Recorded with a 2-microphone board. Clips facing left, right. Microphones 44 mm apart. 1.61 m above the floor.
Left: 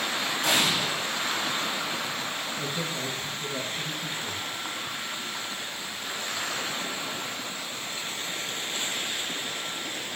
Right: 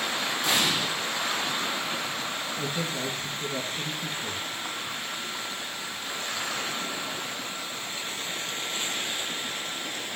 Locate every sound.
0.4 s an explosion: 75° left (ahead or behind), 4 m
2.6 s a man speaking: 25° right (ahead or behind), 1.6 m